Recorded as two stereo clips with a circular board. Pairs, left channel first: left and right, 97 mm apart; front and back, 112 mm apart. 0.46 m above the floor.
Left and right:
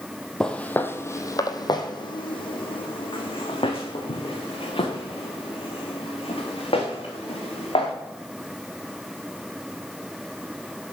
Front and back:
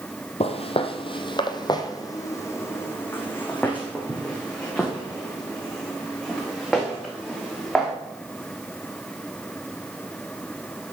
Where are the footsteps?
5° left, 0.9 m; by 7.9 s 90° left, 4 m.